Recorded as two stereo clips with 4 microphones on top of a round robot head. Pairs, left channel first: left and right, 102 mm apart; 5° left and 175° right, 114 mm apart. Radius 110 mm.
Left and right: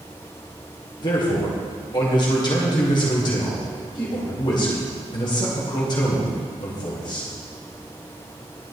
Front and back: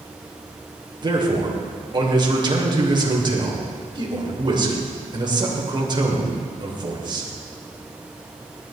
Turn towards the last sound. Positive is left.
turn(degrees=135)